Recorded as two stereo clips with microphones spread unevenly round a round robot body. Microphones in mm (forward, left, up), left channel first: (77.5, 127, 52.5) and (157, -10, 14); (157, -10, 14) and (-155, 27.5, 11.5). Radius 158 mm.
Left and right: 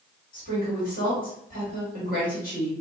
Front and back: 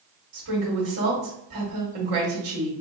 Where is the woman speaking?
150° left, 1.4 m.